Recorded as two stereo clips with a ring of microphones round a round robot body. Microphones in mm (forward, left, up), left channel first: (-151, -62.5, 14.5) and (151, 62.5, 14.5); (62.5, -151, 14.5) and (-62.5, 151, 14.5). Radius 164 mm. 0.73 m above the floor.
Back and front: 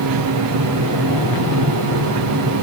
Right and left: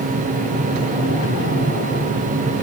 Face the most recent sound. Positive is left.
No sound to turn to.